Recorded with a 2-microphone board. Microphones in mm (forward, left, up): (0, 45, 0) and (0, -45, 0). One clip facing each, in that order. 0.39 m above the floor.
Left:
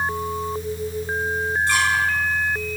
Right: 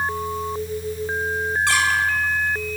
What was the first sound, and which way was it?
A squeak, 75° right (ahead or behind).